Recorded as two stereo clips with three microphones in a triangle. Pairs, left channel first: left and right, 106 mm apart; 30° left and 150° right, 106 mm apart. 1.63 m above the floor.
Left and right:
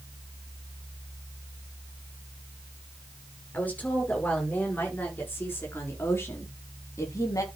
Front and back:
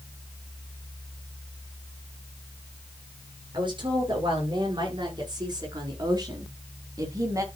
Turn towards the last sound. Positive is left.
turn(degrees=150)